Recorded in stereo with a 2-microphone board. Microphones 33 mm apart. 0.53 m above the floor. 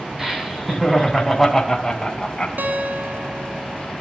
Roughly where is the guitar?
Right.